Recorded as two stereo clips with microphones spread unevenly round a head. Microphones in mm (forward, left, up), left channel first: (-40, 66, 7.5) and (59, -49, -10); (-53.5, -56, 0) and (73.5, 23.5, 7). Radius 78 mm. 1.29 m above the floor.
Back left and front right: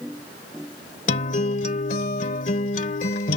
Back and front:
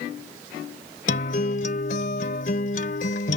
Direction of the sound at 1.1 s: 170° left.